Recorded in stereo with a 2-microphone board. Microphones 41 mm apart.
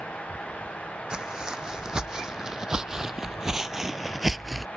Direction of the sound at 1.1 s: 15° right (ahead or behind).